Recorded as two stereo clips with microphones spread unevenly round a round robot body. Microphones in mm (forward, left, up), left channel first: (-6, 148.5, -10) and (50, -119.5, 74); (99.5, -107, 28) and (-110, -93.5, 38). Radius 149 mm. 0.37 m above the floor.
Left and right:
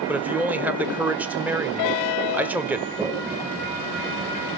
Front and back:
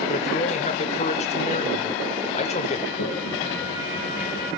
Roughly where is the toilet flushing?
Ahead.